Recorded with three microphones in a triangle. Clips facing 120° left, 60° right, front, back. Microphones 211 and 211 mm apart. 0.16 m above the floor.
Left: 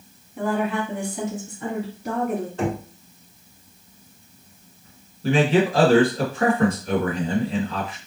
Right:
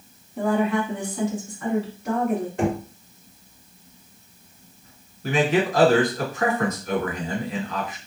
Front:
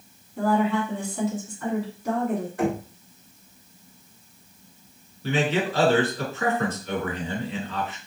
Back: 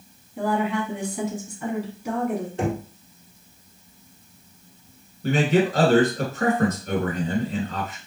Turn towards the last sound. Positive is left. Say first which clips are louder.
# left 3 dB, back 4 dB
turn(degrees=165)